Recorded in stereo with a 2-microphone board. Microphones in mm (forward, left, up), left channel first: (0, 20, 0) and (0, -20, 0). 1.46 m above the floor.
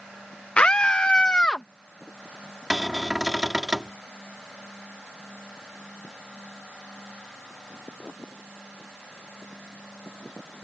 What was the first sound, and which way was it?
A scream, 35° left (ahead or behind).